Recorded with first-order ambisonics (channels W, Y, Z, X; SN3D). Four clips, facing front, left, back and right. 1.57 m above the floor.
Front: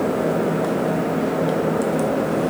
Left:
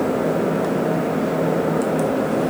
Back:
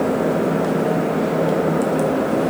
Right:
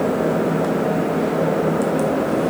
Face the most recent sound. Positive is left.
No sound to turn to.